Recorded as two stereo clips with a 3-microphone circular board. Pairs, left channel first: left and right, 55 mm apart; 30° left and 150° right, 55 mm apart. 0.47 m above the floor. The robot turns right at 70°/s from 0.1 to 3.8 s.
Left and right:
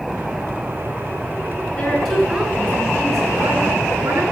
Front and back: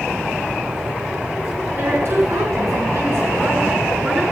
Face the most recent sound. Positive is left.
turn(degrees=-65)